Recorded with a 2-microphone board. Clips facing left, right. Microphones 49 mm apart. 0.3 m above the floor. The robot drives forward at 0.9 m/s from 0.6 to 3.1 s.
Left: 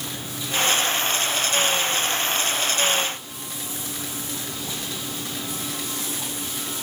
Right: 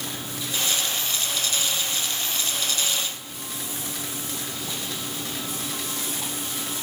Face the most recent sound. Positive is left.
No sound to turn to.